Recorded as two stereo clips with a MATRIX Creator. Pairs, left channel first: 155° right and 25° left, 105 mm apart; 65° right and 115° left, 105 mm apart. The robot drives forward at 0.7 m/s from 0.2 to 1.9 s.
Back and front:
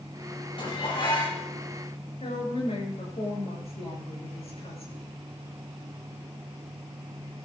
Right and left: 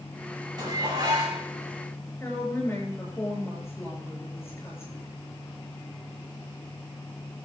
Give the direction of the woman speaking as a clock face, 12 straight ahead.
4 o'clock.